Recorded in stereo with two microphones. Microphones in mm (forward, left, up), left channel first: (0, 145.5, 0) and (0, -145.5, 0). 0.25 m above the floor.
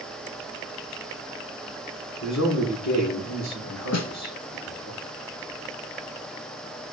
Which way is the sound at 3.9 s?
65° left (ahead or behind).